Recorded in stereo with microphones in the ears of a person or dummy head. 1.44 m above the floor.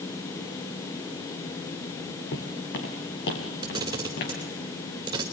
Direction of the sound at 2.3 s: 65° left (ahead or behind).